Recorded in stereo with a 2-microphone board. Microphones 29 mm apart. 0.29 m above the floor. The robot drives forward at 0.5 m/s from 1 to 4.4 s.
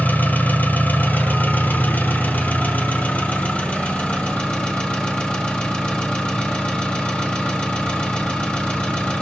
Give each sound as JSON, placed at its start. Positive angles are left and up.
{"t": 0.0, "sound": "an engine running", "side_deg": 80, "distance_m": 1.5}